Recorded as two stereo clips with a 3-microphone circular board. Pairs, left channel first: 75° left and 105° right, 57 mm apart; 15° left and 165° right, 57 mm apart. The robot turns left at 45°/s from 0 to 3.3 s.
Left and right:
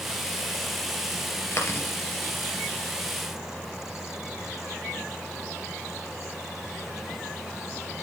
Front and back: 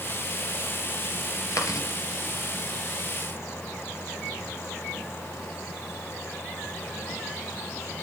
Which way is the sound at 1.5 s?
45° left.